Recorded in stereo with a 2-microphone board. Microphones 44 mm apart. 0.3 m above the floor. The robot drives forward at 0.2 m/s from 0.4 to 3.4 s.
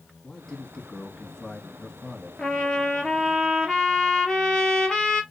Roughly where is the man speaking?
Centre.